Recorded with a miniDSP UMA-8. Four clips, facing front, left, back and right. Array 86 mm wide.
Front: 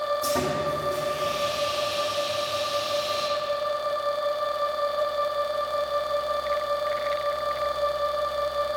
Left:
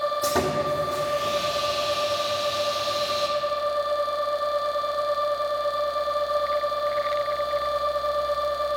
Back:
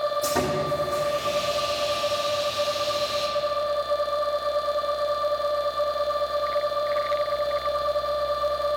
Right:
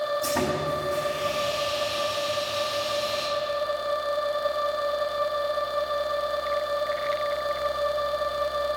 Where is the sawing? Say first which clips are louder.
Left 2 dB, back 1 dB; 90° left, 3 m.